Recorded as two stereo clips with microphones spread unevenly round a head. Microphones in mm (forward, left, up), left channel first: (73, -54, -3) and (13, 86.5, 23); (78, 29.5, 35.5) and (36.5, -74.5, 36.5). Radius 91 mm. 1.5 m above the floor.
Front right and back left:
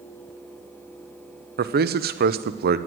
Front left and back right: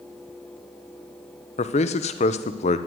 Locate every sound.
1.6 s a man speaking: 90° left, 0.9 m